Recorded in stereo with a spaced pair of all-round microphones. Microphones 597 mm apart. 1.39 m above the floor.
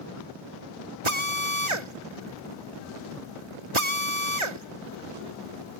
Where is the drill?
50° right (ahead or behind).